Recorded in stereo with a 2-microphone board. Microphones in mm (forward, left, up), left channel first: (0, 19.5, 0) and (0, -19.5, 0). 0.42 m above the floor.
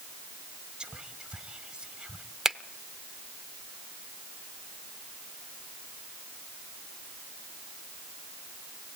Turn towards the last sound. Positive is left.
turn(degrees=-10)  # may be behind; listen again after turning